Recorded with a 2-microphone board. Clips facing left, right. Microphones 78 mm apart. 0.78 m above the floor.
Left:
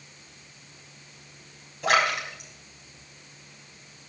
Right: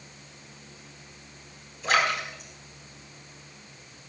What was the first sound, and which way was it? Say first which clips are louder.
A splash: left 2 dB; 65° left (ahead or behind).